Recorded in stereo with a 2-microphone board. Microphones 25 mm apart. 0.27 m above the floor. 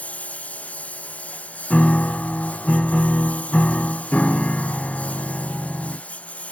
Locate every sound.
0.0 s a lawn mower: 65° left (ahead or behind); by 6.5 s 60° left (ahead or behind)
1.7 s a piano: 60° left (ahead or behind)